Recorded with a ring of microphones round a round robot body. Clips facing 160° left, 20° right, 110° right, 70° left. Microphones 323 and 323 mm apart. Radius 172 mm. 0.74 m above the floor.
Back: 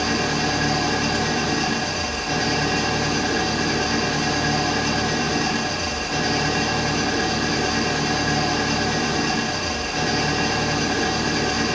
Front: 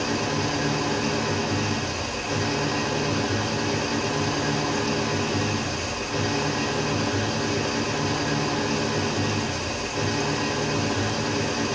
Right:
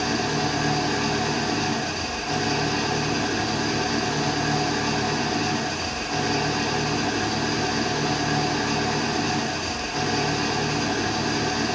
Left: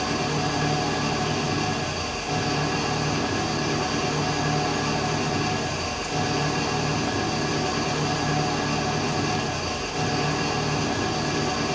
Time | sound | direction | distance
0.0 | an engine running | 165° right | 0.9 m